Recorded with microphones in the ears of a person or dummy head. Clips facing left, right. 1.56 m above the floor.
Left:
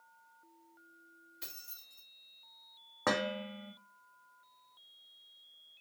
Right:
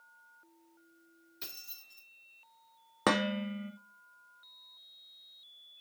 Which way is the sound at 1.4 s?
30° right (ahead or behind).